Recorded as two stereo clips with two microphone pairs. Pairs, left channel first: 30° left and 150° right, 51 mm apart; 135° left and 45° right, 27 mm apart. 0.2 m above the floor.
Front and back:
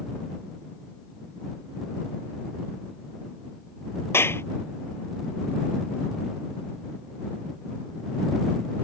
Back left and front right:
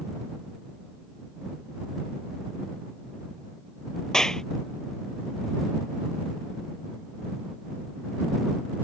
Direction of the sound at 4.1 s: 65° left.